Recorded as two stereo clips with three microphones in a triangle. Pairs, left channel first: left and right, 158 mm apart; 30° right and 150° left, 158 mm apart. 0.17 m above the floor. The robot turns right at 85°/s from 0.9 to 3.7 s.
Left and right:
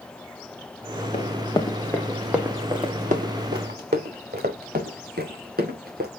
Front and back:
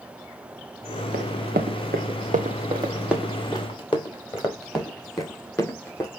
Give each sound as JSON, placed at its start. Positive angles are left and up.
{"t": 1.1, "sound": "running footsteps", "azimuth_deg": 135, "distance_m": 1.6}